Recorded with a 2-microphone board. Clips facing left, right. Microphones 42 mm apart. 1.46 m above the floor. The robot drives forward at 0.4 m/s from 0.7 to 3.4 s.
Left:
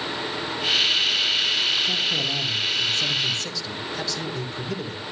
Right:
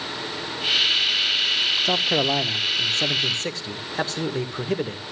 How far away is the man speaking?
About 1.1 m.